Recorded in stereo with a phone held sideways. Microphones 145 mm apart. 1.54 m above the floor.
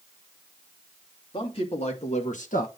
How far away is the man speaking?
About 3 m.